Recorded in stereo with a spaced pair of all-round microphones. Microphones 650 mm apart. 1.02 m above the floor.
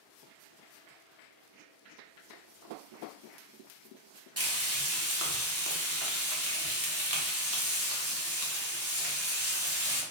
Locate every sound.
4.4 s frying: 25° right (ahead or behind), 0.8 m